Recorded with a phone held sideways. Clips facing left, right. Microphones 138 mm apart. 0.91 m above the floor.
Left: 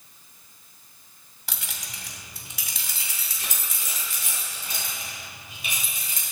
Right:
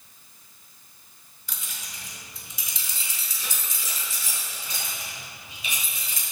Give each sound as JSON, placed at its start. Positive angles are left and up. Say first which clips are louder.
{"t": 1.5, "sound": "keys jangling", "louder": "left 3 dB", "side_deg": 80, "distance_m": 0.8}